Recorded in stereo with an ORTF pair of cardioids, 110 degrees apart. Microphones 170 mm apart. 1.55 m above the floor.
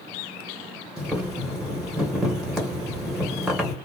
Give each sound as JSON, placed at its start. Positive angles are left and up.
{"t": 1.0, "sound": "boiling", "azimuth_deg": -5, "distance_m": 1.7}